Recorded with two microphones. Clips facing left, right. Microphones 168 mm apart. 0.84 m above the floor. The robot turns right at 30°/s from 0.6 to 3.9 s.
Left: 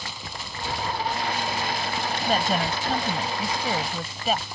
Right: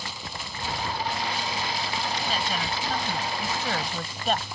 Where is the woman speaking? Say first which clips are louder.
Left 6 dB; 125° left; by 4.5 s 175° left.